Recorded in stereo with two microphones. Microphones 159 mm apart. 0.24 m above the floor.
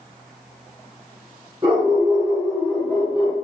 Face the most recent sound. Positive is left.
turn(degrees=35)  # may be behind; listen again after turning